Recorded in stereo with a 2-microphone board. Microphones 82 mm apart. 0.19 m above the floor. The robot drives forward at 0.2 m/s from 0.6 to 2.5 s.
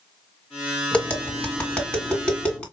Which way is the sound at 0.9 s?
15° left (ahead or behind).